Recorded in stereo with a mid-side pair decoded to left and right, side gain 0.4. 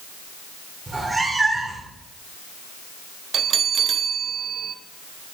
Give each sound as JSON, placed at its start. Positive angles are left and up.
{"t": 0.9, "sound": "a cat meowing", "azimuth_deg": -15, "distance_m": 2.5}
{"t": 3.3, "sound": "a bell", "azimuth_deg": -60, "distance_m": 0.9}